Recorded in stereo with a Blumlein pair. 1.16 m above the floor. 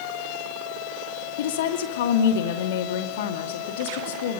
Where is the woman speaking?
55° left, 2.5 m.